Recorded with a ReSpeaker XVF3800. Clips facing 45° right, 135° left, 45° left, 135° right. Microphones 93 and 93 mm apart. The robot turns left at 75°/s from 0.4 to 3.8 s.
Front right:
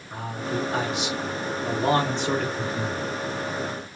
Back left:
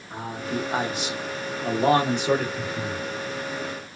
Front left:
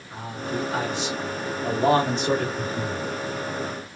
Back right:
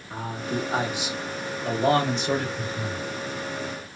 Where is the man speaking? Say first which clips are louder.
Even, back right 1 dB; 160° right, 1.0 m; by 2.5 s 45° left, 1.0 m.